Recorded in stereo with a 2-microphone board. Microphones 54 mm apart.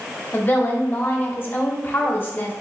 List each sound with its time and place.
0.3 s a woman speaking: 35° left (ahead or behind), 0.8 m